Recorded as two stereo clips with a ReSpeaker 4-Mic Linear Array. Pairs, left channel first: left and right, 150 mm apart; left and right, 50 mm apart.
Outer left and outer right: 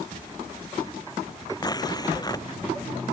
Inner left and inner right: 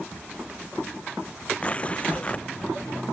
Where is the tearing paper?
25° left (ahead or behind).